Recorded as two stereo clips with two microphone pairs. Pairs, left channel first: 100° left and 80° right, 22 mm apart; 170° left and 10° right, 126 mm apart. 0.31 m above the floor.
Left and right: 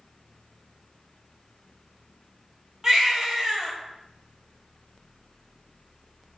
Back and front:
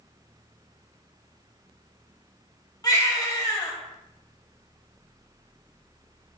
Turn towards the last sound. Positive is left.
turn(degrees=-135)